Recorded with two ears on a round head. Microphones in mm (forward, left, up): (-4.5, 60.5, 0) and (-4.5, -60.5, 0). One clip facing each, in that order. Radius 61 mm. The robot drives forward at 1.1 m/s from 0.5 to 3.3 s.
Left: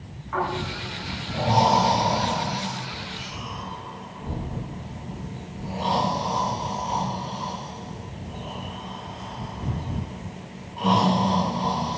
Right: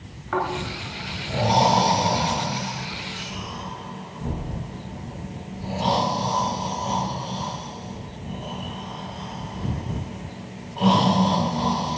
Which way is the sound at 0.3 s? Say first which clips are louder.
Right 1 dB; 80° right.